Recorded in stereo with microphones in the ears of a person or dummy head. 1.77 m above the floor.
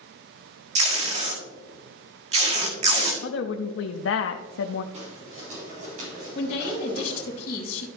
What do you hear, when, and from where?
0.8 s tape being pulled: 35° right (ahead or behind), 1.5 m
3.2 s a woman speaking: 80° left, 0.6 m
4.9 s footsteps: 35° right (ahead or behind), 3.5 m; by 7.3 s 55° right (ahead or behind), 5 m
6.3 s a woman speaking: 40° left (ahead or behind), 1.9 m